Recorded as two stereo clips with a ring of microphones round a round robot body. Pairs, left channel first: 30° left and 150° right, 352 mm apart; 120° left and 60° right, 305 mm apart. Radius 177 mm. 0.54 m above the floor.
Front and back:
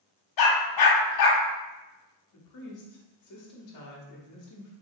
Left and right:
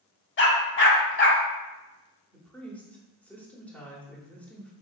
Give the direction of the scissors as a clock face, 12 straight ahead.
I don't hear scissors.